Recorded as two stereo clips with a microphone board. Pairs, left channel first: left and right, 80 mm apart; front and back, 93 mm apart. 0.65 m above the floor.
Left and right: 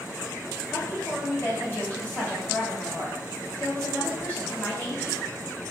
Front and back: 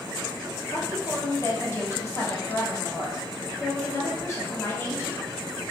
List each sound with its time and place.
0.7 s a woman speaking: 35° left, 1.3 m